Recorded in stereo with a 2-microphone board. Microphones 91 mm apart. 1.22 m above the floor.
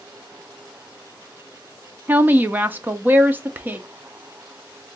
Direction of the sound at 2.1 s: 20° right (ahead or behind).